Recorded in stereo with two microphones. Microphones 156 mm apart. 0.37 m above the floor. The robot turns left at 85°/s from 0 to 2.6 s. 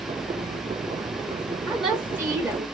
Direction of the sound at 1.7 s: 5° left (ahead or behind).